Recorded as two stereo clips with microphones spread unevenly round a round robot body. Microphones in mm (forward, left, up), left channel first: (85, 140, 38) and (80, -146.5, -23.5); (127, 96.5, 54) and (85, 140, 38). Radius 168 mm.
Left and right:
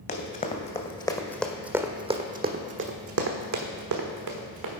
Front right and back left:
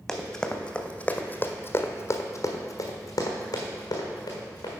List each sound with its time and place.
0.1 s running footsteps: 35° left, 1.4 m; by 4.8 s 70° right, 1.8 m